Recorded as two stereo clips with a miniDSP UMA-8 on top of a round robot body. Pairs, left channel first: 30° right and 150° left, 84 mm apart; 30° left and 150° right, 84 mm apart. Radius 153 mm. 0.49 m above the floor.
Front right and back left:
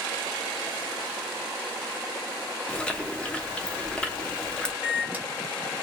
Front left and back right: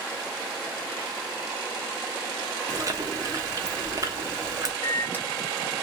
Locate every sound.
2.7 s chewing: 105° right, 1.2 m
4.8 s a microwave: 90° left, 1.2 m